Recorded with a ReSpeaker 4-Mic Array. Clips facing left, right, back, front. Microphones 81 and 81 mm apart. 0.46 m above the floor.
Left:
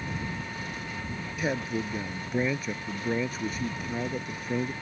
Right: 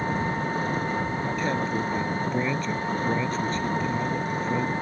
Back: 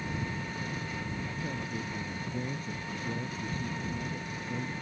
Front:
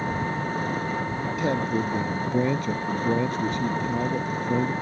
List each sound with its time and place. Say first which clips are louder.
0.0 s an engine running: right 9 dB, front 9 dB; 45° right
1.4 s a man speaking: right 1 dB, front 16 dB; 10° left